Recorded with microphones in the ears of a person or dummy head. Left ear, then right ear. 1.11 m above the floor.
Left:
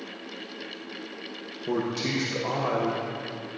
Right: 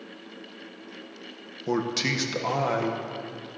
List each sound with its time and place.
1.7 s a man speaking: 45° right (ahead or behind), 0.7 m